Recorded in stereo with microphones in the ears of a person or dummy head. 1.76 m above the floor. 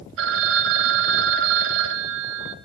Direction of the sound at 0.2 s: 65° right (ahead or behind).